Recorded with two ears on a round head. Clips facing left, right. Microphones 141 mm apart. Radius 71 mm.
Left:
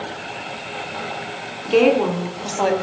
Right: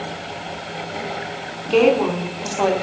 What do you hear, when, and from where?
1.6 s a woman speaking: centre (ahead or behind), 3.5 m